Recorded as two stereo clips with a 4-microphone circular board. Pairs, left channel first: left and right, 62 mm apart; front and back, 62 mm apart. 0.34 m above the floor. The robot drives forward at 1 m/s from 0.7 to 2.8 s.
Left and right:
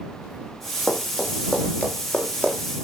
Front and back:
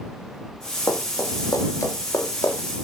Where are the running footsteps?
20° left, 7 m.